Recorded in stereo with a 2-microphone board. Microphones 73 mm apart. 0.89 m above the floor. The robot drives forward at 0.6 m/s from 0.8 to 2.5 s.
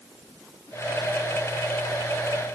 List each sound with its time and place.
Only background noise.